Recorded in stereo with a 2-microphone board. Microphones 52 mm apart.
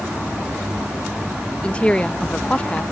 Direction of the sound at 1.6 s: 20° left (ahead or behind).